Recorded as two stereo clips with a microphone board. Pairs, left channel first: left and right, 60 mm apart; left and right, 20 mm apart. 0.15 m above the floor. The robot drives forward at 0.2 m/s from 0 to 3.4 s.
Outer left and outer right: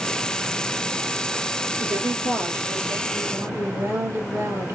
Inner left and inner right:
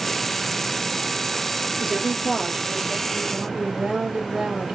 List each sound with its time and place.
1.8 s a woman speaking: 60° right (ahead or behind), 2.5 m